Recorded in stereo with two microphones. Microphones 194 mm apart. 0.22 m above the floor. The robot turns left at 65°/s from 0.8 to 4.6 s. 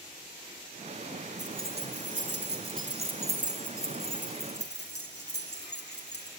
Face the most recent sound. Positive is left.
turn(degrees=65)  # may be behind; listen again after turning